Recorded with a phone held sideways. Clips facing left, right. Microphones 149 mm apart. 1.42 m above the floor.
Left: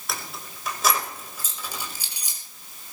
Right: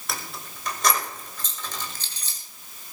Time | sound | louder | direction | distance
0.1 | keys jangling | even | centre (ahead or behind) | 5 m